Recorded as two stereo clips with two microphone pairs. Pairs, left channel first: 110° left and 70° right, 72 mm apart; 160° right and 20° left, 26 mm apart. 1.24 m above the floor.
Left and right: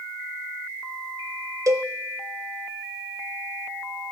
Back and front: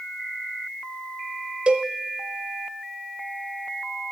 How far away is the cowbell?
About 0.7 m.